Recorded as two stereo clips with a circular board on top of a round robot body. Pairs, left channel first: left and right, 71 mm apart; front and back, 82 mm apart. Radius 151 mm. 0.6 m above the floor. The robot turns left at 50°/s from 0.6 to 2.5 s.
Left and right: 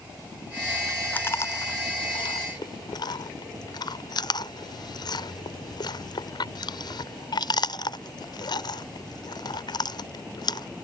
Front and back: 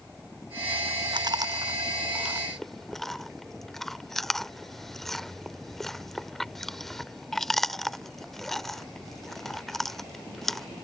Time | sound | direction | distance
1.1 | chewing | 155° left | ?